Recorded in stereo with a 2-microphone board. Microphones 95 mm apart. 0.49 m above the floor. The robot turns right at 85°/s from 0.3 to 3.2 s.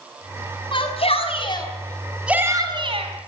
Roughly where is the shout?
Ahead left.